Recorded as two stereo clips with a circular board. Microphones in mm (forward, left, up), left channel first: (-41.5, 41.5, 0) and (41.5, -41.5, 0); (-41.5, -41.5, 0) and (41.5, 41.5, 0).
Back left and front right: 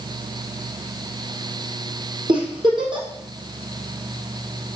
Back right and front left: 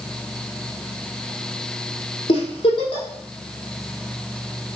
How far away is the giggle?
About 3 m.